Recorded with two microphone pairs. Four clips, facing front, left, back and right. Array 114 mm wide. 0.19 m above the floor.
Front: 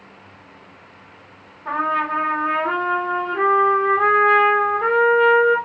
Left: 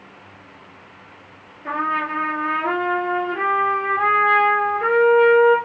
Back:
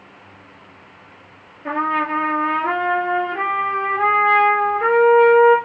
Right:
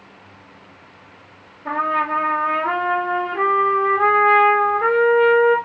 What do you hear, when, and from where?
1.6 s a trumpet: 165° left, 2.5 m